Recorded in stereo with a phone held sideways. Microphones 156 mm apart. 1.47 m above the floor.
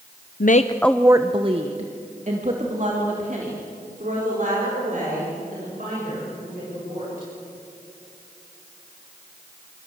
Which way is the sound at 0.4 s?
65° left (ahead or behind).